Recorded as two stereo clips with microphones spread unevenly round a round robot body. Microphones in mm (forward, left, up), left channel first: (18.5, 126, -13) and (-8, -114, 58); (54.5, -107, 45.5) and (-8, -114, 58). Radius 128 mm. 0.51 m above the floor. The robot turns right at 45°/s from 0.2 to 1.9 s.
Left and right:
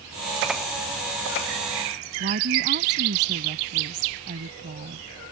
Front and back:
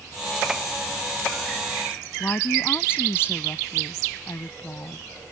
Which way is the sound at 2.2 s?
45° right.